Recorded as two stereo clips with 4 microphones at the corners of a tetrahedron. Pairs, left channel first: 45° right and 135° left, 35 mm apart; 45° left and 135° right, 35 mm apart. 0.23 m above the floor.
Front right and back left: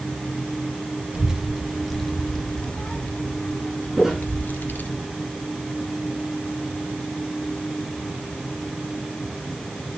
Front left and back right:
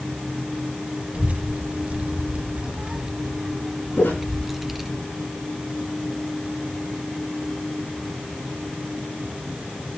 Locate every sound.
1.1 s a child speaking: 160° right, 1.2 m; by 5.0 s 50° right, 1.9 m
4.0 s footsteps: 50° left, 8 m